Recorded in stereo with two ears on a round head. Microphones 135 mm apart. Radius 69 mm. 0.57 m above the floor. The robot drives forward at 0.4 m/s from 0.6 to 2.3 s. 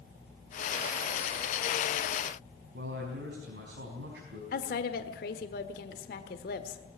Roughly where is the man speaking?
Right.